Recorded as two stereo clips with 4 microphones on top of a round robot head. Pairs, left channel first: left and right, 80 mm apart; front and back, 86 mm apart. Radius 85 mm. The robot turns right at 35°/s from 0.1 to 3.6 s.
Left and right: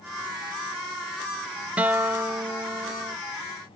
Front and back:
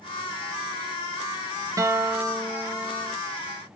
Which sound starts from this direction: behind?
A guitar, at 1.8 s.